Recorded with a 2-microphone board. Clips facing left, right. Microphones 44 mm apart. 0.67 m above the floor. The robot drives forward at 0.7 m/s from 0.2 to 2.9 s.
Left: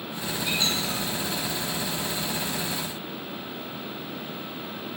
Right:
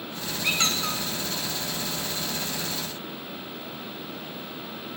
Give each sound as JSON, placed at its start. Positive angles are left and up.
{"t": 0.4, "sound": "a squeak", "side_deg": -80, "distance_m": 2.5}